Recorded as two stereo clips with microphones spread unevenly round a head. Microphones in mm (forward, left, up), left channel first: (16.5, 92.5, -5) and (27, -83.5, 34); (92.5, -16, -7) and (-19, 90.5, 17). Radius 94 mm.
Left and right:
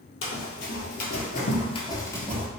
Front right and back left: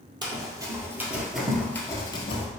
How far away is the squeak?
I don't hear a squeak.